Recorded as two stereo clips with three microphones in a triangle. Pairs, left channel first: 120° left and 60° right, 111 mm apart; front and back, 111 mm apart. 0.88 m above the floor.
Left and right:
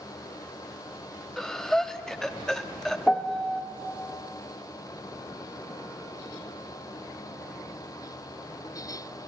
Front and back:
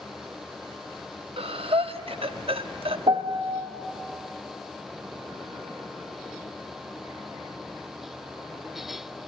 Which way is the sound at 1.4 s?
155° right.